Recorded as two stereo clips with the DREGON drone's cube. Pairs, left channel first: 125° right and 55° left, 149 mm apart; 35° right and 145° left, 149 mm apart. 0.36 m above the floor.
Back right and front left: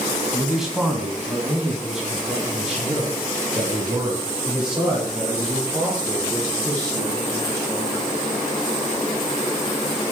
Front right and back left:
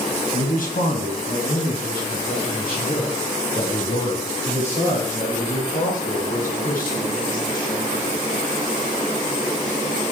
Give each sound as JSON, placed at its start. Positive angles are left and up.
{"t": 0.3, "sound": "a man speaking", "azimuth_deg": -30, "distance_m": 2.0}